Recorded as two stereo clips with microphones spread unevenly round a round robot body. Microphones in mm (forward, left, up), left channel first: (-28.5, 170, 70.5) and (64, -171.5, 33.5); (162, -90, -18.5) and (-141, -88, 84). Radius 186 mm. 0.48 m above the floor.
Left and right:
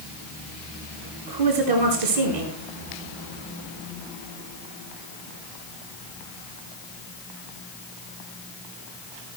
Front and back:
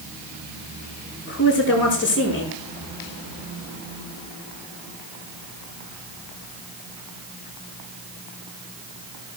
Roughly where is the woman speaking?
Ahead right.